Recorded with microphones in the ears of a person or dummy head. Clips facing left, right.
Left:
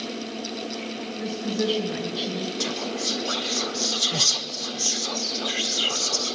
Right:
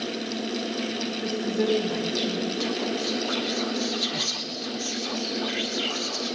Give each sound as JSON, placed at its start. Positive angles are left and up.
{"t": 1.2, "sound": "a woman speaking", "side_deg": 10, "distance_m": 3.5}
{"t": 2.6, "sound": "whispering", "side_deg": 45, "distance_m": 1.5}